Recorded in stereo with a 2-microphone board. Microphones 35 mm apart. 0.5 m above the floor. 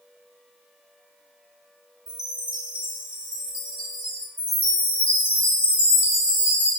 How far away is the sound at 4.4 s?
About 2 m.